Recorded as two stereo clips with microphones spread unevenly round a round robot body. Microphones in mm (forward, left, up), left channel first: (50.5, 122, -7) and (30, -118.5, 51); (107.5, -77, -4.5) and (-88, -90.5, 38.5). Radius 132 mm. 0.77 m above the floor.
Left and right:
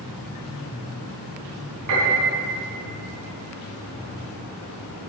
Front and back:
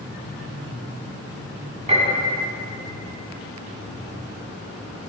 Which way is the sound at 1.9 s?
120° right.